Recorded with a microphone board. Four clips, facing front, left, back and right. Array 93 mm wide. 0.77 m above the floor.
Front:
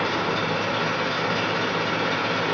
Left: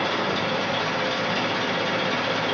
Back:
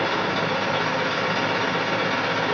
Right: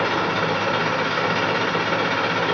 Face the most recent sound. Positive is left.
turn(degrees=-95)